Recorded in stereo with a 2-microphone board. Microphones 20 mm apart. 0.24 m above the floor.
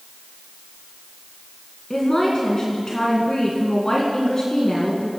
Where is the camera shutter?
No camera shutter in this recording.